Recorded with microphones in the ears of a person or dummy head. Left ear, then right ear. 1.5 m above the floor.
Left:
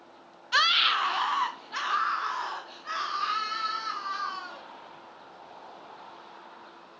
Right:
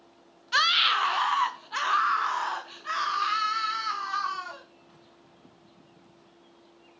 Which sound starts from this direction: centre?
A scream, at 0.5 s.